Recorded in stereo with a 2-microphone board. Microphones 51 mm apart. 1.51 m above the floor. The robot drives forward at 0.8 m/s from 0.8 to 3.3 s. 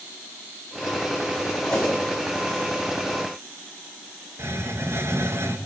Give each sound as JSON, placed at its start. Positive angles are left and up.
{"t": 1.7, "sound": "a whoosh", "side_deg": 10, "distance_m": 9.0}
{"t": 4.4, "sound": "a hiss", "side_deg": -55, "distance_m": 2.5}